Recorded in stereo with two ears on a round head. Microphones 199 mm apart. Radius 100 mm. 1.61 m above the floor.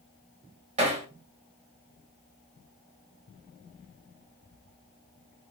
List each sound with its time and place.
0.8 s hammering: 30° right (ahead or behind), 3.5 m